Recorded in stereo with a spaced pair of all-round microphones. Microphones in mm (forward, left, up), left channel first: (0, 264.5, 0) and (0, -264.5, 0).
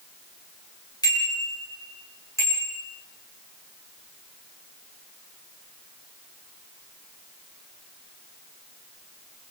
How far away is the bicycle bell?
About 7.5 m.